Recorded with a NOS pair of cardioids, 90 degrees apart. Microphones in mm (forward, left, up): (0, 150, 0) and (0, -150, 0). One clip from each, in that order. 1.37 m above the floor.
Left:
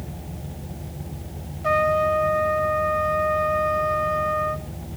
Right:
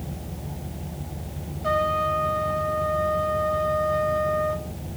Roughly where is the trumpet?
Ahead.